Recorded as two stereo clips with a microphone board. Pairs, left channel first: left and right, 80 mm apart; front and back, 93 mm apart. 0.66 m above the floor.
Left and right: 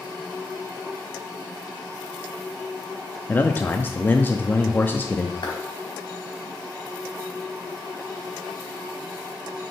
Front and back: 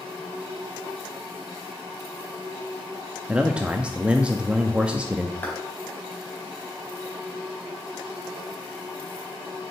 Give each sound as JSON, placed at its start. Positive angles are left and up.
{"t": 3.3, "sound": "a man speaking", "azimuth_deg": 120, "distance_m": 0.5}
{"t": 5.4, "sound": "a clap", "azimuth_deg": 70, "distance_m": 3.5}